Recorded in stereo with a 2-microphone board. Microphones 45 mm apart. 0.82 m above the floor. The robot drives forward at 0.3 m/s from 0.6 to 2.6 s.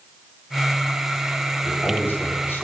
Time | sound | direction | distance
1.6 | a man speaking | 55° left (ahead or behind) | 5 m